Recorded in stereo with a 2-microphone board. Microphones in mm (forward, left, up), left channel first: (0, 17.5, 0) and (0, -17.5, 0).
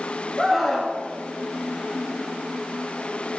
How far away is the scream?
About 3 m.